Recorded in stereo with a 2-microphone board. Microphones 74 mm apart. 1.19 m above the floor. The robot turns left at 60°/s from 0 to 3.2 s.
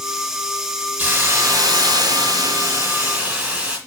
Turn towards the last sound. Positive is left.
turn(degrees=-165)